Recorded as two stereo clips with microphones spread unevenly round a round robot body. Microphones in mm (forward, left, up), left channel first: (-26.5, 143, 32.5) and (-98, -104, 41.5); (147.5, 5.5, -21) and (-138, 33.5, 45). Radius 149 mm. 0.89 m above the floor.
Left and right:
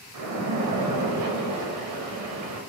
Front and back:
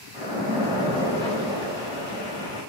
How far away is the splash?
About 0.8 m.